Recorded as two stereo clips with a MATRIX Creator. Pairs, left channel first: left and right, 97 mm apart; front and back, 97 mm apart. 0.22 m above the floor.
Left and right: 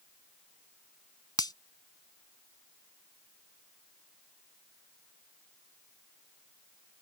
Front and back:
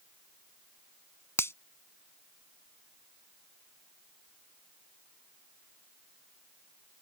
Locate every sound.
1.4 s a finger snap: 60° left